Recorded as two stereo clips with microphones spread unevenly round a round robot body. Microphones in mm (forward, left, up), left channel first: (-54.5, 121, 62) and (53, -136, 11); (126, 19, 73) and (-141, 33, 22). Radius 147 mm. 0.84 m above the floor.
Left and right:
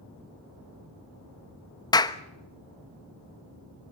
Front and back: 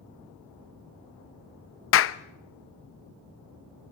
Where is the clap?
30° left, 0.9 m.